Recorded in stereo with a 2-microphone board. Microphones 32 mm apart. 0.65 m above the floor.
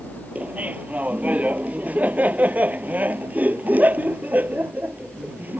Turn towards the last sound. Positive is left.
turn(degrees=-55)  # may be behind; listen again after turning